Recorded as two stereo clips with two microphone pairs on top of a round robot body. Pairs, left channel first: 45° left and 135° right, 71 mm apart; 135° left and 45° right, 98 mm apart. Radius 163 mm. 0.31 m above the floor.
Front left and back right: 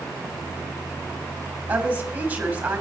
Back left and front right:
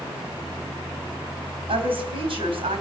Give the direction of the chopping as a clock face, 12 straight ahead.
I don't hear chopping.